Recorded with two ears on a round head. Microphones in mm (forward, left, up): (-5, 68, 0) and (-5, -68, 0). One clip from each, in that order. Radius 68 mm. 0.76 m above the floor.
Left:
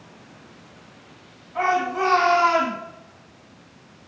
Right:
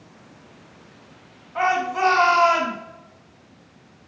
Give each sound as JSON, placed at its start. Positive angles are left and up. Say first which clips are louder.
{"t": 1.6, "sound": "a shout", "louder": "right 1 dB", "side_deg": -20, "distance_m": 1.6}